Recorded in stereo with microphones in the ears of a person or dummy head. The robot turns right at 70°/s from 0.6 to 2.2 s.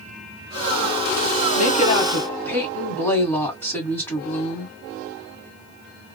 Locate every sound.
1.6 s a woman speaking: 120° left, 1.8 m; by 4.7 s 165° left, 1.8 m